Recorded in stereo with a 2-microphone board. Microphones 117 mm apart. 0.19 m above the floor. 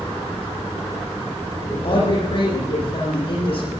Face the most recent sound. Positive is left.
turn(degrees=50)  # may be behind; listen again after turning